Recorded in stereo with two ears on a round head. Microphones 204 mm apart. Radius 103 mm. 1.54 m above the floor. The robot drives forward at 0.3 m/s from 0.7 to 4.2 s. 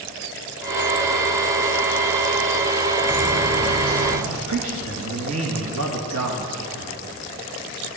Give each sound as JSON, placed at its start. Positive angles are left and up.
{"t": 3.1, "sound": "footsteps", "side_deg": -65, "distance_m": 6.0}
{"t": 4.5, "sound": "a man speaking", "side_deg": -75, "distance_m": 1.7}